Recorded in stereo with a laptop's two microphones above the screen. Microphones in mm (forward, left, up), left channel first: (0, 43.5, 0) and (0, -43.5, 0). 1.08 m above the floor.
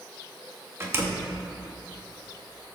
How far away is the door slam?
About 1.3 m.